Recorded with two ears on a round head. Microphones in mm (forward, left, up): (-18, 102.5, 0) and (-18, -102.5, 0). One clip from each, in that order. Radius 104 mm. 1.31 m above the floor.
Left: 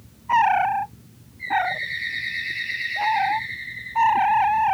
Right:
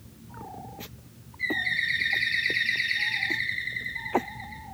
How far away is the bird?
About 6 m.